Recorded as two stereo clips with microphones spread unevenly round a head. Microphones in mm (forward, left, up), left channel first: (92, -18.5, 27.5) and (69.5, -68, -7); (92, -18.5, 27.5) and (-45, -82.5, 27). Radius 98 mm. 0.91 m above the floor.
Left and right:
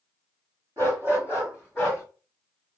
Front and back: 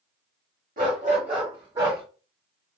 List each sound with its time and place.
0.8 s a dog barking: 165° left, 1.0 m; by 2.0 s 125° left, 1.3 m